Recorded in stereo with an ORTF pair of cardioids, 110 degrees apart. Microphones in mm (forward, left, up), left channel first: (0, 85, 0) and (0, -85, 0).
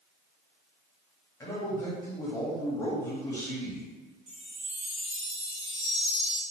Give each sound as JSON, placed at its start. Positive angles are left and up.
{"t": 1.4, "sound": "a man speaking", "azimuth_deg": 20, "distance_m": 1.1}
{"t": 4.3, "sound": "a chime", "azimuth_deg": -45, "distance_m": 1.1}